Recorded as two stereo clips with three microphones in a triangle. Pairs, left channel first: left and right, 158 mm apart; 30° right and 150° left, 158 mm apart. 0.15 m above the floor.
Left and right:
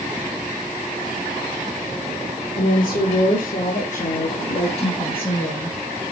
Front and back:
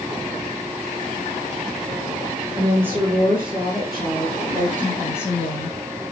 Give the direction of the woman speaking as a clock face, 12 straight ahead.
9 o'clock.